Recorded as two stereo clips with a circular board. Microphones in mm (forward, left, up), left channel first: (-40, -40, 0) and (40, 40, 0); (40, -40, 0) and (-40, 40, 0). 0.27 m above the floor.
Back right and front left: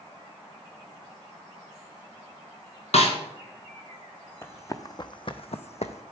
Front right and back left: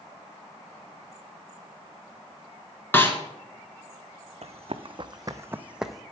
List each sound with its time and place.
2.9 s a snare drum: 115° right, 1.2 m
4.4 s running footsteps: 155° left, 0.8 m; by 6.0 s 130° right, 0.7 m